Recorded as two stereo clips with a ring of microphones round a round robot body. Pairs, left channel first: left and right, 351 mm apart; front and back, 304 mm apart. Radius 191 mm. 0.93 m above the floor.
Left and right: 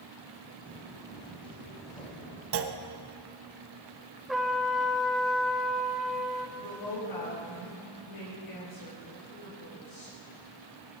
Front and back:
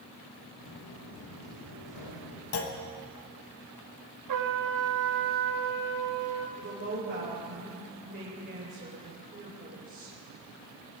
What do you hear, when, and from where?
0.7 s footsteps: 5° right, 4 m; by 2.4 s 15° left, 4 m
2.5 s a clunk: 40° right, 1.2 m
4.3 s a trumpet: straight behind, 1.3 m
6.6 s a woman speaking: 125° left, 4 m